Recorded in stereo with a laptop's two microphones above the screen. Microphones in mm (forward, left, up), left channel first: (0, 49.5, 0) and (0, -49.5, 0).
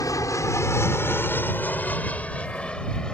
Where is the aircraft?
35° left (ahead or behind); by 3.1 s 5° left (ahead or behind).